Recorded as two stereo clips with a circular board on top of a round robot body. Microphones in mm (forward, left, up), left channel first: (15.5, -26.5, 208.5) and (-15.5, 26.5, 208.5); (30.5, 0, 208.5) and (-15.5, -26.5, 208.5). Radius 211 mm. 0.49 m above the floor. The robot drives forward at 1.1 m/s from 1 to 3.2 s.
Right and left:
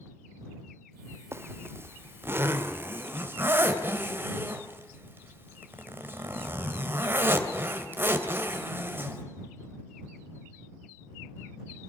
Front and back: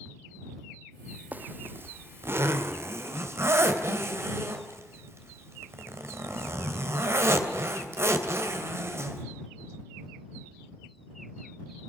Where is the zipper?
160° left, 1.1 m; by 9.2 s 175° left, 3 m.